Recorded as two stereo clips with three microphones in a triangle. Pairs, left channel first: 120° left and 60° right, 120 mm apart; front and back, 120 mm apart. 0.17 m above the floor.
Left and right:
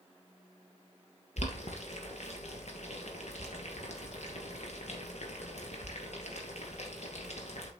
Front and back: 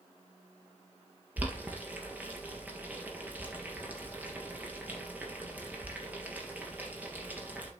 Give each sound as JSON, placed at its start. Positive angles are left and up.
{"t": 1.4, "sound": "boiling", "azimuth_deg": 105, "distance_m": 3.0}